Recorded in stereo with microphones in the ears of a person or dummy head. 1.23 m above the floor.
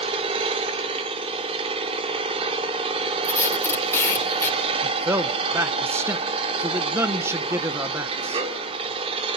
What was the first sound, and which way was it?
An engine running, 25° right (ahead or behind).